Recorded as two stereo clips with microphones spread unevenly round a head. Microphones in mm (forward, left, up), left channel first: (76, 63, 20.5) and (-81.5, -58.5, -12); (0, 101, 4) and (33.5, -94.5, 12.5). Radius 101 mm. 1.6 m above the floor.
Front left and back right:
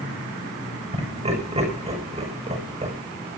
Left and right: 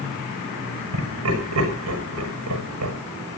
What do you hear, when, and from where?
0.9 s laughter: 80° right, 7 m